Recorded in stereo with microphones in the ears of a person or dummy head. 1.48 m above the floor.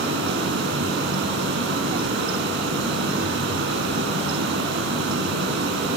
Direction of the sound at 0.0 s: 60° right (ahead or behind).